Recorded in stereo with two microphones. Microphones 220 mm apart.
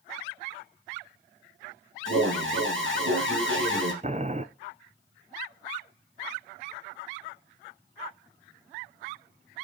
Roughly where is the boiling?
Right.